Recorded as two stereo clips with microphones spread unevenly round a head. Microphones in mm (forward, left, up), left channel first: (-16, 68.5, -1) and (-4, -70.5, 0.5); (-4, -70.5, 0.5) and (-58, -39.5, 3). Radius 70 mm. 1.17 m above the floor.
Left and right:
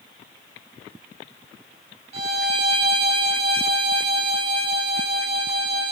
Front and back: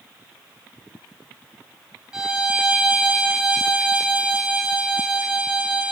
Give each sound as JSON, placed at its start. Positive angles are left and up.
{"t": 2.1, "sound": "a violin", "azimuth_deg": -130, "distance_m": 3.0}